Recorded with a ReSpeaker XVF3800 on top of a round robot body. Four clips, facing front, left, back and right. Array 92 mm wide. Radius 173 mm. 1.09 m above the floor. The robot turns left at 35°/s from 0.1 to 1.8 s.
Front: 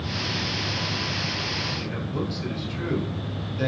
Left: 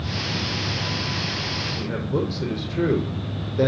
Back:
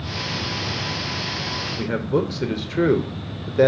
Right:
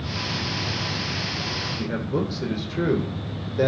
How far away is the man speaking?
About 4.5 m.